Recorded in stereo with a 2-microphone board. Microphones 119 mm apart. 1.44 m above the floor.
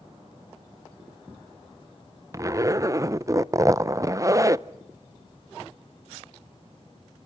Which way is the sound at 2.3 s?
25° right (ahead or behind).